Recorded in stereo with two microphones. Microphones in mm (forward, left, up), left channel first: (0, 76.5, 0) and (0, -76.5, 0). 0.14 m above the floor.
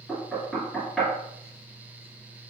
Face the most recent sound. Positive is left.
turn(degrees=5)  # may be behind; listen again after turning